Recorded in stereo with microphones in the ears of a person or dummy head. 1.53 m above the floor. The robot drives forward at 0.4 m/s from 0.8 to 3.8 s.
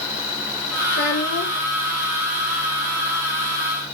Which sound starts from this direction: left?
A child speaking, at 0.9 s.